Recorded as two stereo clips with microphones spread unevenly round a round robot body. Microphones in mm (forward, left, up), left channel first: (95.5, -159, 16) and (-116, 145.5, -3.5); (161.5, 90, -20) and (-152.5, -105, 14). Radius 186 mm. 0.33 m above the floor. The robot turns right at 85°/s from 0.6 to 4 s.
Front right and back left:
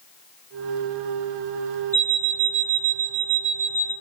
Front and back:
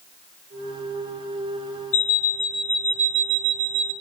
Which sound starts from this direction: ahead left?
An alarm clock, at 1.9 s.